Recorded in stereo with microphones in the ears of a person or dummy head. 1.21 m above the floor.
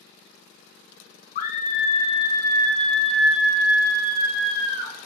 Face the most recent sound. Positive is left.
turn(degrees=-25)  # may be behind; listen again after turning